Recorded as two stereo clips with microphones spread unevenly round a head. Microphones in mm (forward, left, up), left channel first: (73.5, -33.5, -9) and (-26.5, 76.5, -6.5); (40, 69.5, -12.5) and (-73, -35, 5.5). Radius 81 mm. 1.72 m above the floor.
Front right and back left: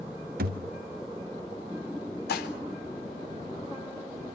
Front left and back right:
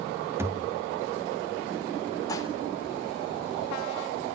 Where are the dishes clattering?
30° right, 3.5 m.